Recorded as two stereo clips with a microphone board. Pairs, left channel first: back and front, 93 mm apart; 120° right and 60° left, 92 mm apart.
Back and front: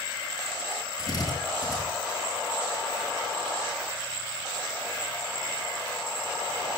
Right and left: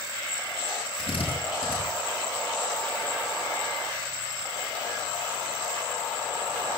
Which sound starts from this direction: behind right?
A drill, at 1.0 s.